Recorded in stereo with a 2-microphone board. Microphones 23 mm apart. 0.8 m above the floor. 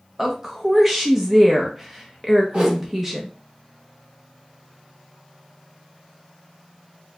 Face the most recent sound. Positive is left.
turn(degrees=-40)  # may be behind; listen again after turning